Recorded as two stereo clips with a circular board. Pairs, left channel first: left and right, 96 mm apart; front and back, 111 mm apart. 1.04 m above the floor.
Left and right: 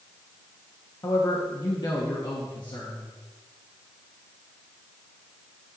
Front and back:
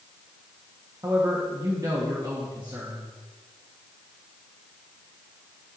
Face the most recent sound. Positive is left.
turn(degrees=125)